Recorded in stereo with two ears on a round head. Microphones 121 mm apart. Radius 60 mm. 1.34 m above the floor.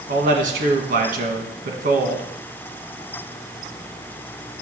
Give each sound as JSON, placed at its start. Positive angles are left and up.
{"t": 0.1, "sound": "a man speaking", "side_deg": -65, "distance_m": 1.7}